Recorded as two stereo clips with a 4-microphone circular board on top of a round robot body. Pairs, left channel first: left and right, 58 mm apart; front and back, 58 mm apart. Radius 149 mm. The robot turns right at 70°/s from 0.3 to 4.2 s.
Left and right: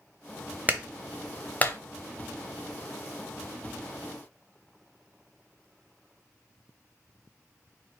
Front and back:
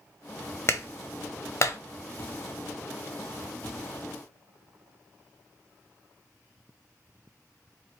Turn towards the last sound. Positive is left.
turn(degrees=-150)